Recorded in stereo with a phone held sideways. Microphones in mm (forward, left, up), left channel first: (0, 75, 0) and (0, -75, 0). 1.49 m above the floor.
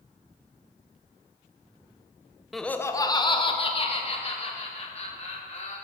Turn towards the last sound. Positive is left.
turn(degrees=50)  # may be behind; listen again after turning